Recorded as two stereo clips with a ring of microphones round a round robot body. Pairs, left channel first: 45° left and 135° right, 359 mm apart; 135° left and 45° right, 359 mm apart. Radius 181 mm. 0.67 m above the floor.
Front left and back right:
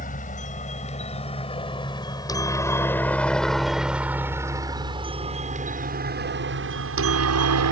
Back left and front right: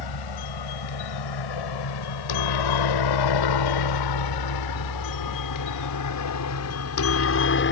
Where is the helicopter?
115° left; by 7.7 s 170° right.